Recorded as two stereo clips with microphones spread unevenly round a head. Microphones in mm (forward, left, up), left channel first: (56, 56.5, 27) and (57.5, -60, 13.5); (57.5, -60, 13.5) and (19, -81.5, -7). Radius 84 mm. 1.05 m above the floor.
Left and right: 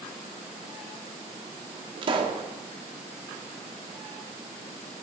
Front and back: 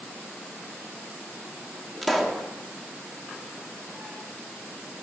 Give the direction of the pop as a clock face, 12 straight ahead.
1 o'clock.